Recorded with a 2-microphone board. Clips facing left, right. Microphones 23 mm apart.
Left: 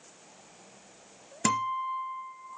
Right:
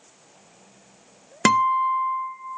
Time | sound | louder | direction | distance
1.4 | a guitar | right 10 dB | 35° right (ahead or behind) | 0.7 m